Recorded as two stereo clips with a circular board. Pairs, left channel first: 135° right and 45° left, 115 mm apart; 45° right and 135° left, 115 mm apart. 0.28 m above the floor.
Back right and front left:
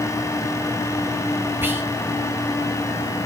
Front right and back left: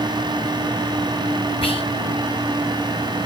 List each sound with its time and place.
1.6 s whispering: 25° right, 2.5 m